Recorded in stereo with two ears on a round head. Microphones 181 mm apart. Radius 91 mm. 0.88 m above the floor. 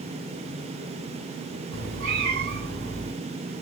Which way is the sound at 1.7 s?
70° right (ahead or behind).